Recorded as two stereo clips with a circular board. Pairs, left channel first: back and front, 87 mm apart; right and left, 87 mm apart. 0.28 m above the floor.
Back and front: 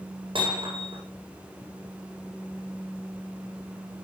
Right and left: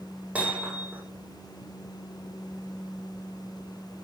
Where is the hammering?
15° left, 7.5 m.